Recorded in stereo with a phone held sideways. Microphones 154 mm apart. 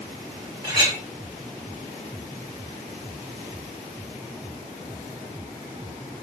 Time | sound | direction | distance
0.6 | a clink | 25° right (ahead or behind) | 2.5 m